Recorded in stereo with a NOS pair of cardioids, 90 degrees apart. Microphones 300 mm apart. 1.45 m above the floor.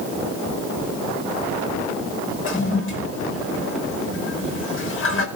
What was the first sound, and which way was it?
A toilet flushing, 45° left.